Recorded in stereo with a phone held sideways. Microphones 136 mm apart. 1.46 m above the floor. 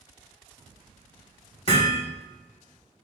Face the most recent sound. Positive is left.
turn(degrees=40)  # may be behind; listen again after turning